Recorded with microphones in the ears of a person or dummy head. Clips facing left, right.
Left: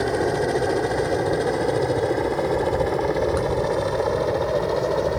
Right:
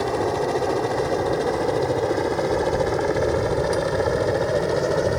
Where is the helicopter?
10° left (ahead or behind); by 5.2 s 10° right (ahead or behind).